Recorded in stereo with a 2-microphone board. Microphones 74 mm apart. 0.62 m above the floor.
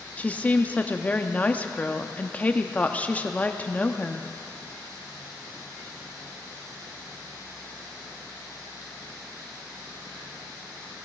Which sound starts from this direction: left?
A woman speaking, at 0.2 s.